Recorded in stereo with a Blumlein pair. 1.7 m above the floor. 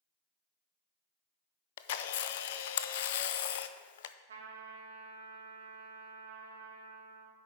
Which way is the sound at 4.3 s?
65° right.